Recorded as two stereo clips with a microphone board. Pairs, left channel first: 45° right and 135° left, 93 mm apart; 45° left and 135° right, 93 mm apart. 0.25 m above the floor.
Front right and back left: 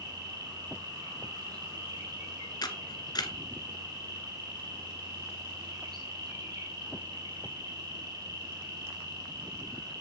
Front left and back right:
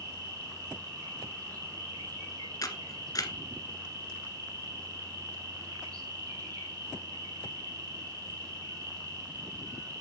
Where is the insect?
Straight behind, 4.5 m.